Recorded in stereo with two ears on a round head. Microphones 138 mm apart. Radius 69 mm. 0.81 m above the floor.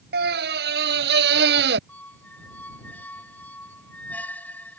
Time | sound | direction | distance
0.1 | a scream | 75° right (ahead or behind) | ?
1.9 | a squeak | 10° left (ahead or behind) | ?